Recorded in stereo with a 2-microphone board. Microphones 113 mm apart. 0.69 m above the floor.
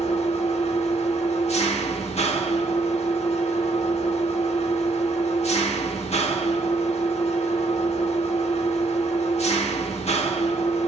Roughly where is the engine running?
Left.